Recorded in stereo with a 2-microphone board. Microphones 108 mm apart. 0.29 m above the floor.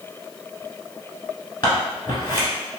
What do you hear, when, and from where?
1.6 s scissors: 45° left (ahead or behind), 1.3 m